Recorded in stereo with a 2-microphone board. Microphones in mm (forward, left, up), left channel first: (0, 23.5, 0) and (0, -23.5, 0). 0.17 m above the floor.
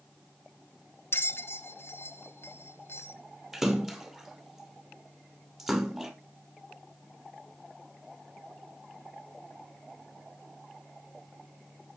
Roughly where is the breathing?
I don't hear breathing.